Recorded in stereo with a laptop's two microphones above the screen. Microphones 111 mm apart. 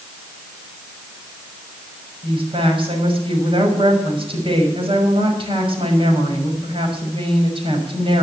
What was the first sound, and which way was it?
A woman speaking, 50° right (ahead or behind).